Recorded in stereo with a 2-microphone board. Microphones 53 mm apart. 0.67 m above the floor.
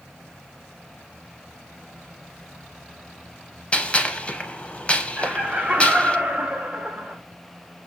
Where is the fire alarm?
No fire alarm in this recording.